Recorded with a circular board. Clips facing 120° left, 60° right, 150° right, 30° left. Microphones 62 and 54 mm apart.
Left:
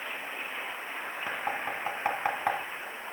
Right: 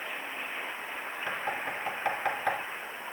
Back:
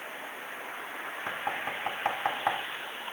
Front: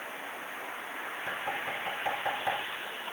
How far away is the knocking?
About 2.0 m.